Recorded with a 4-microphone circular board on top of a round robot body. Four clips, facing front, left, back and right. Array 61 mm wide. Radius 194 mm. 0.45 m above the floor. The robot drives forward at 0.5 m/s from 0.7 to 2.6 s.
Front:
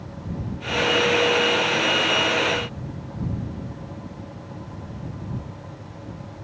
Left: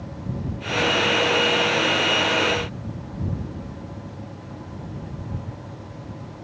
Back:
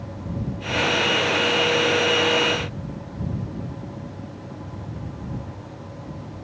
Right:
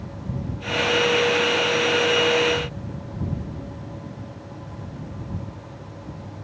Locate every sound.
Only background noise.